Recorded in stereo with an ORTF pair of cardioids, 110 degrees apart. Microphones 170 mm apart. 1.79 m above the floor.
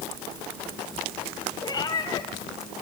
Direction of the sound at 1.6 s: 25° left.